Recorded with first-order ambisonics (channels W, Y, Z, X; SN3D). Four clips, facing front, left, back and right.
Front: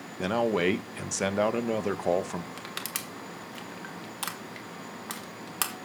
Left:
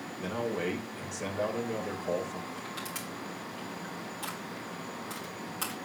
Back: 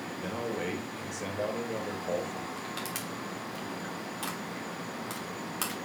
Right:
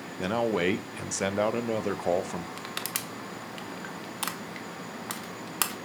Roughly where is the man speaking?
Ahead right.